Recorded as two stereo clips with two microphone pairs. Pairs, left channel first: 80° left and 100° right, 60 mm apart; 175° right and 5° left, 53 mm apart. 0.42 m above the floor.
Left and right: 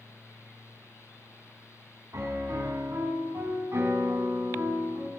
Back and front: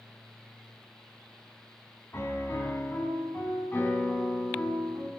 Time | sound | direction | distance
2.1 | a piano | 130° right | 4.5 m